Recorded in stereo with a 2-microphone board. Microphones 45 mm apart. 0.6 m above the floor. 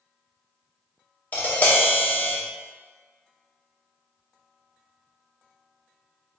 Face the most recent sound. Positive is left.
turn(degrees=35)  # may be behind; listen again after turning